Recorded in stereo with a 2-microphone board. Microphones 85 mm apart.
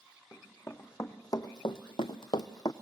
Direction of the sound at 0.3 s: 30° left (ahead or behind).